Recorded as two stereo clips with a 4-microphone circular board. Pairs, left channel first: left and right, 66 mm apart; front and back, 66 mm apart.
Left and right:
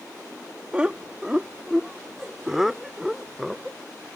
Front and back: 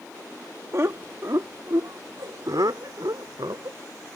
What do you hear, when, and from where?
0.7 s laughter: 155° right; by 3.8 s straight behind